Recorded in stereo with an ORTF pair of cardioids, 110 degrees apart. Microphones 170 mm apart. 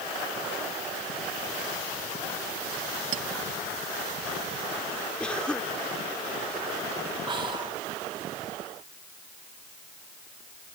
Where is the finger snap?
I don't hear a finger snap.